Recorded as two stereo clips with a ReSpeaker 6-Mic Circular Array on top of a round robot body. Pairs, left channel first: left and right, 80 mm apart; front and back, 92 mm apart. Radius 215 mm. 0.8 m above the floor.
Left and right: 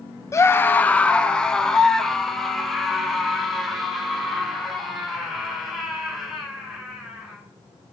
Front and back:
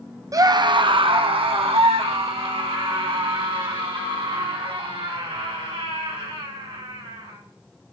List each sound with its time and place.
0.3 s a scream: 135° left, 1.0 m; by 7.4 s 175° right, 8.5 m